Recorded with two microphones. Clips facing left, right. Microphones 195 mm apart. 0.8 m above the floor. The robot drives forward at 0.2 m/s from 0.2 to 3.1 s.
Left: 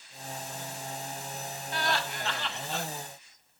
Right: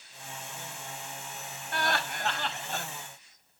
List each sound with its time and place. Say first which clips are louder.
1.7 s laughter: even; 55° right (ahead or behind), 1.0 m; by 2.9 s 45° right (ahead or behind), 1.1 m